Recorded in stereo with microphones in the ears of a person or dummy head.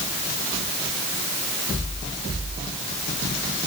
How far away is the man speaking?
I don't hear a man speaking.